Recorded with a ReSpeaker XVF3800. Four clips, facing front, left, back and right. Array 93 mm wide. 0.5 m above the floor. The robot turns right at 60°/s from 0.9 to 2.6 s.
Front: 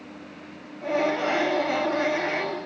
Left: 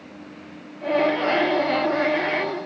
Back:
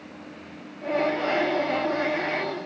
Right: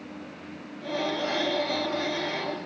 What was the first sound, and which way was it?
Only background noise.